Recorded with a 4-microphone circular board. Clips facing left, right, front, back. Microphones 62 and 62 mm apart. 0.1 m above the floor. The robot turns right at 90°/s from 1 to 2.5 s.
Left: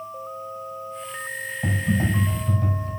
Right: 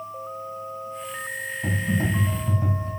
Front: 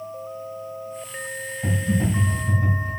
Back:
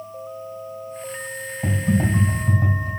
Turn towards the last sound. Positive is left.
turn(degrees=-150)